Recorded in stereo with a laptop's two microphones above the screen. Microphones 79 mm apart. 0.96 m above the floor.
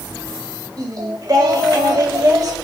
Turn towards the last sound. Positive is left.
turn(degrees=-50)  # may be behind; listen again after turning